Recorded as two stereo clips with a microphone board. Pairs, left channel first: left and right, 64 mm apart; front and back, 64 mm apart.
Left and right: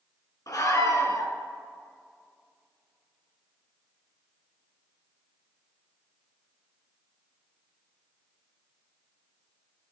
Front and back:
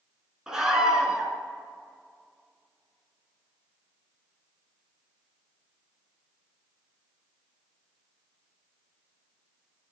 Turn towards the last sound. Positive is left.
turn(degrees=100)